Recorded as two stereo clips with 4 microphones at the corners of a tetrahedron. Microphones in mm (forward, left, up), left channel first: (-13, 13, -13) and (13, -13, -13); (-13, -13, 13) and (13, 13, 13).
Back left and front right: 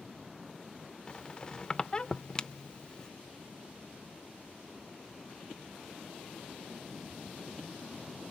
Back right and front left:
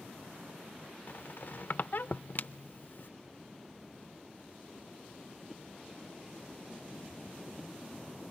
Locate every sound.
1.1 s a squeak: 160° right, 0.5 m